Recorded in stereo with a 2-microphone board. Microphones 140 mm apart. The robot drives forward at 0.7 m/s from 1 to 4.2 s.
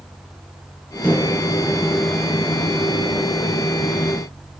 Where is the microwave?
15° left (ahead or behind), 1.1 m; by 3.5 s 5° left (ahead or behind), 2.5 m.